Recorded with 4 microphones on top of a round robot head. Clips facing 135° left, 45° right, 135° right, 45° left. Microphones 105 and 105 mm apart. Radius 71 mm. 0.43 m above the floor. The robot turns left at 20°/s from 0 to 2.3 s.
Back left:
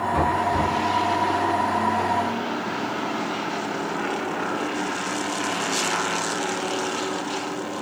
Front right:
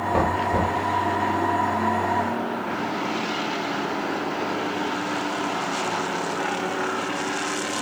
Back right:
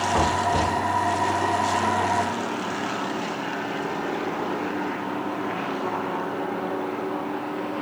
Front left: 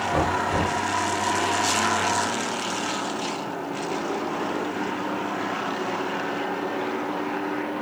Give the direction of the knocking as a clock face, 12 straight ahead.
1 o'clock.